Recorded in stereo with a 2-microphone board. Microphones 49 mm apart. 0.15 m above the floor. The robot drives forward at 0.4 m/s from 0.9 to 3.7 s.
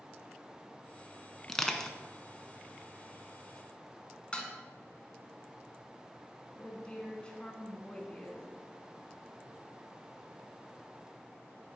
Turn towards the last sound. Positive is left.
turn(degrees=20)  # may be behind; listen again after turning